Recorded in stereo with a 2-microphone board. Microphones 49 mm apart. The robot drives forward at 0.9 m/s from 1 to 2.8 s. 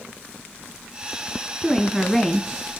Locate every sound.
1.6 s a woman speaking: 10° left (ahead or behind), 1.9 m